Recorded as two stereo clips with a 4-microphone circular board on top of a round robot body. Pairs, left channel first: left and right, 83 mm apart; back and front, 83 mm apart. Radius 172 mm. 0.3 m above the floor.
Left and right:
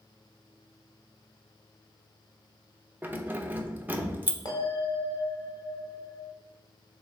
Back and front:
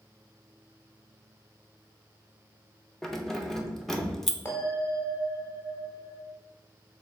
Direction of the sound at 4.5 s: 120° left.